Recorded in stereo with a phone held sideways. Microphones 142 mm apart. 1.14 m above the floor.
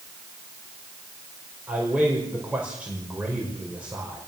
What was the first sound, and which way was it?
A man speaking, 10° right (ahead or behind).